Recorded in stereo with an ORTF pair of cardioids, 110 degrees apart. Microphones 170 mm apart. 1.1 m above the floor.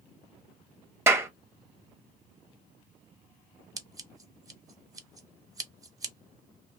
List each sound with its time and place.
1.1 s a clap: 15° right, 0.9 m
3.8 s scissors: 20° right, 0.9 m